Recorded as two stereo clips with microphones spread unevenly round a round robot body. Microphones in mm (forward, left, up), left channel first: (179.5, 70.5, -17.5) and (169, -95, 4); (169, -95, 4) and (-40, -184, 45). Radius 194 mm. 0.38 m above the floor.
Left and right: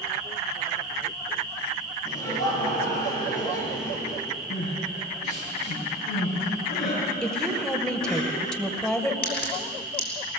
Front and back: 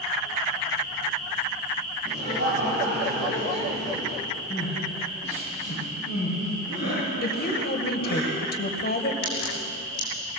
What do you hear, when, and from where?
2.0 s laughter: 135° left, 6.5 m
4.5 s crying: 95° left, 8 m
7.2 s a woman speaking: 5° left, 2 m
9.2 s a crack: 65° left, 5 m